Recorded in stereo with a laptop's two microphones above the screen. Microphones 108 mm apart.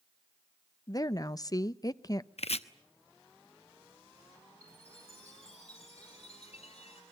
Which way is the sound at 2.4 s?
75° left (ahead or behind).